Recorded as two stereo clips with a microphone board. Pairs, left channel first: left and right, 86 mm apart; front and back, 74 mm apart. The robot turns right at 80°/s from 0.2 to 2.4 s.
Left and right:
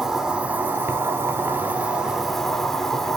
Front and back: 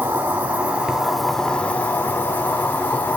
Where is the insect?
165° right, 0.9 m; by 3.2 s 10° left, 0.9 m.